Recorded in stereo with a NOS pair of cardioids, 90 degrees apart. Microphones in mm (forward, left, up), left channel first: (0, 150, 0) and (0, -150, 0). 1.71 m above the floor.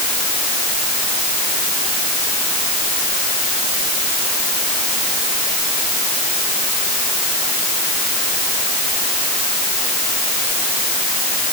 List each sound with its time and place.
Only background noise.